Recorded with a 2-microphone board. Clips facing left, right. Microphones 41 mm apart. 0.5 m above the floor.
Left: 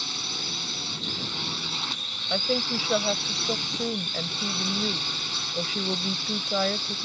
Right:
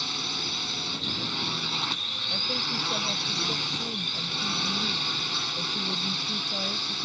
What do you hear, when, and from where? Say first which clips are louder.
0.0 s a drone: right 1 dB; 10° right (ahead or behind)
2.3 s a woman speaking: left 7 dB; 60° left (ahead or behind)